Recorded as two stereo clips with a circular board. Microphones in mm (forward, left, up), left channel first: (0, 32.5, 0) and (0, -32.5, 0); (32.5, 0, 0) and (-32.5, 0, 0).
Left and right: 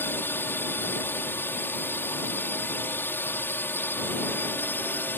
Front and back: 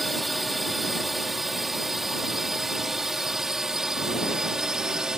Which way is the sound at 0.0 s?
90° left.